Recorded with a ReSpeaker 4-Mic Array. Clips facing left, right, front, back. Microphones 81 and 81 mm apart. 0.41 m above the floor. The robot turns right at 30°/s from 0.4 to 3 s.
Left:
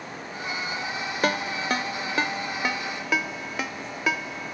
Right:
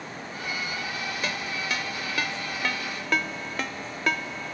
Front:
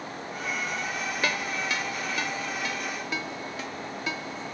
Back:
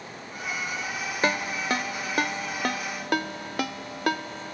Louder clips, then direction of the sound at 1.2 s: Left 9 dB, back 5 dB; 120° left.